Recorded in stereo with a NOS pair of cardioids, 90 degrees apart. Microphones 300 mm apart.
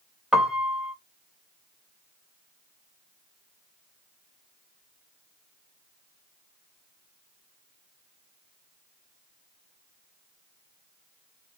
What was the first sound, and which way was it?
A piano, straight ahead.